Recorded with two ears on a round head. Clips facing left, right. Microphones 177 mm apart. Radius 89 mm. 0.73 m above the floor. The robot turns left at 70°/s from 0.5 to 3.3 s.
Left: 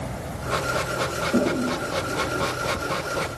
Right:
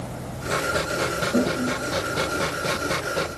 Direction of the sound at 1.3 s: 30° left (ahead or behind).